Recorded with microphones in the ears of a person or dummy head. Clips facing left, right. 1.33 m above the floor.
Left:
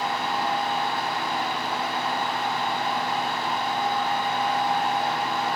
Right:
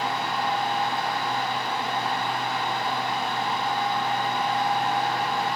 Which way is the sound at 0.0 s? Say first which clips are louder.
Even; 15° right (ahead or behind).